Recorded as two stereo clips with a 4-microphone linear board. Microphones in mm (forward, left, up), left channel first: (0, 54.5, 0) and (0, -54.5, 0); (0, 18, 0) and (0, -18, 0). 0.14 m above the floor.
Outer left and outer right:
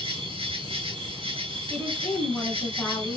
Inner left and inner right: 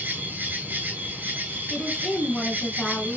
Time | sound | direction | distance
0.0 | an insect | 60° right (ahead or behind) | 0.8 m
1.7 | a woman speaking | 15° left (ahead or behind) | 1.4 m